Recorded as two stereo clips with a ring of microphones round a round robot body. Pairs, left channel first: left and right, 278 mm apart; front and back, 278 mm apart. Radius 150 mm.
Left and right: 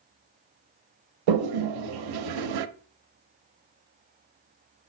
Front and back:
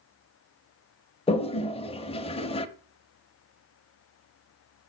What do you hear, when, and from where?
1.3 s a toilet flushing: 70° right, 0.6 m